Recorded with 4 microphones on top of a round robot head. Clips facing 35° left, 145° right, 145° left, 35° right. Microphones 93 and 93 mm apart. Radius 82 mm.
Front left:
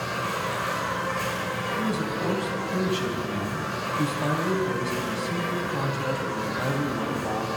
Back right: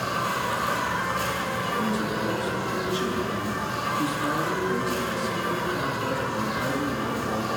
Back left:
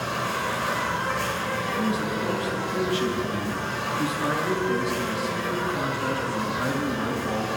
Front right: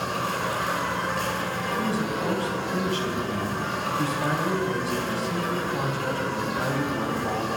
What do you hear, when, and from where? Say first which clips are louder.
0.0 s an insect: back right 2 dB, even; 75° right, 7 m
1.8 s a man speaking: even, even; 15° left, 3.5 m